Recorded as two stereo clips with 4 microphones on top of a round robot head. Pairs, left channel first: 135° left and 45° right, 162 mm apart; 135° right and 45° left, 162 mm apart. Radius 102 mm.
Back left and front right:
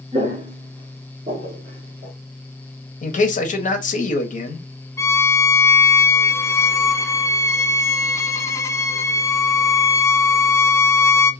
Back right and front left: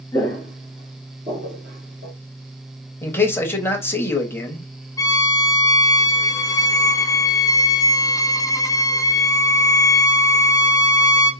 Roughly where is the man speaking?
Behind left.